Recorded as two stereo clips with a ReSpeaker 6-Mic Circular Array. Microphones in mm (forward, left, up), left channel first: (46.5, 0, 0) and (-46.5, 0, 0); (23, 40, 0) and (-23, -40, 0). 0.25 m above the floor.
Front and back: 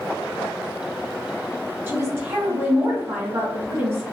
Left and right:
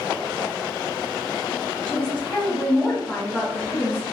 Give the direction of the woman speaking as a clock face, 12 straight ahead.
8 o'clock.